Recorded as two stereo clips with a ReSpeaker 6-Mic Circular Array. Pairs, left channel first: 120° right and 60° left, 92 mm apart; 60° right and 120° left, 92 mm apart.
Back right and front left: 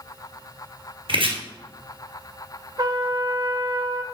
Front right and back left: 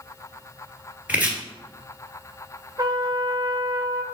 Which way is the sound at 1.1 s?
45° left.